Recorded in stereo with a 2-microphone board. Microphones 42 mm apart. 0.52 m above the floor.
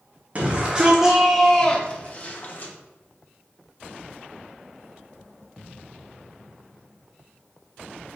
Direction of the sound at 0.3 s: 35° right (ahead or behind).